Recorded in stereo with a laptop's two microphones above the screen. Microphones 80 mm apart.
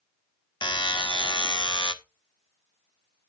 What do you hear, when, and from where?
0.6 s a buzzer: 80° left, 0.8 m